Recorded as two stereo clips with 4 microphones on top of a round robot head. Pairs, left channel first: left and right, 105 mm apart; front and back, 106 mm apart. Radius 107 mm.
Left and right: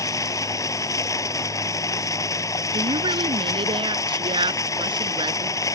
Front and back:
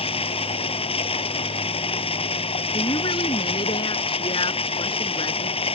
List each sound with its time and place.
0.0 s running water: 30° left
2.7 s a woman speaking: 50° right